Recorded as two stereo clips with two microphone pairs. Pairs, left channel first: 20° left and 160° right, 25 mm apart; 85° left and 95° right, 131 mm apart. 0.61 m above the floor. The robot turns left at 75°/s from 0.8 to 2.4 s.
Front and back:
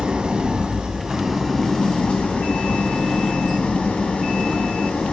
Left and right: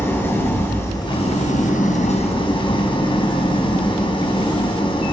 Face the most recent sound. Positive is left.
turn(degrees=40)